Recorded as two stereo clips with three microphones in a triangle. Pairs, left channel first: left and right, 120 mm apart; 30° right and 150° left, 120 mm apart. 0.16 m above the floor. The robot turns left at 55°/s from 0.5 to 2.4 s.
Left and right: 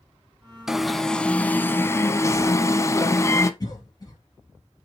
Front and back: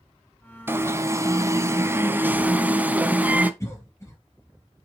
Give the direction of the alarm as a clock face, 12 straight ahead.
6 o'clock.